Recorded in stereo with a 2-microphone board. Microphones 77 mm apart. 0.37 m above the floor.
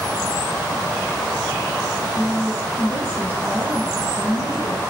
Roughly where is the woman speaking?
Right.